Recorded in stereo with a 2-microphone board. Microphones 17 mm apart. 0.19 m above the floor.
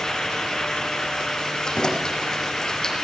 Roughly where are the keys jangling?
Left.